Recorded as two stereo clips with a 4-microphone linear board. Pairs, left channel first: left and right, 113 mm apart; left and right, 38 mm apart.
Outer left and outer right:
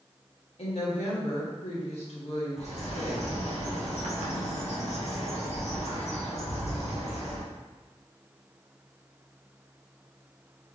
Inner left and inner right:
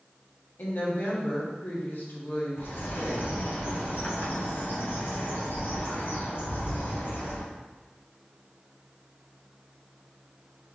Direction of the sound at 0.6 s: 60° left (ahead or behind).